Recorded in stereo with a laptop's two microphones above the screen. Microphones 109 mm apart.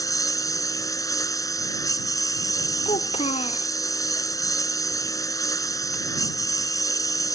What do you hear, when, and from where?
0.0 s a lawn mower: 35° left (ahead or behind)
2.9 s a child speaking: 80° left